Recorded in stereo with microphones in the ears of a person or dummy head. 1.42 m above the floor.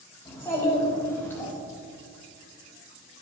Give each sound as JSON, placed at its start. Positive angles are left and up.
{"t": 0.2, "sound": "a child speaking", "side_deg": 20, "distance_m": 3.0}